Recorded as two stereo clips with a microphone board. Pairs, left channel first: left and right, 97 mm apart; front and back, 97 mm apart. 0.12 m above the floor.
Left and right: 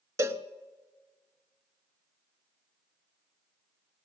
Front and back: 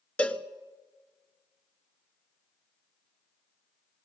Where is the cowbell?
65° right, 0.8 m.